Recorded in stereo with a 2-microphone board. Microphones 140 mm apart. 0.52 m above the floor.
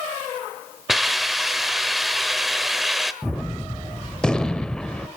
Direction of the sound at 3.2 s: 5° left (ahead or behind).